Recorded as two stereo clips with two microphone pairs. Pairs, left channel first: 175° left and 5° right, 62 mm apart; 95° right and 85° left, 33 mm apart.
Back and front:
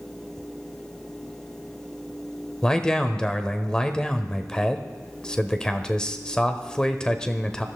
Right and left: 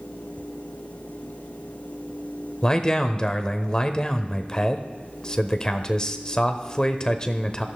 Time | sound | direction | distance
2.6 | a man speaking | 125° right | 1.0 m